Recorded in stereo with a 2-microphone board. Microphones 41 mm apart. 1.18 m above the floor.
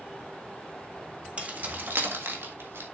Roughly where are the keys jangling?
Right.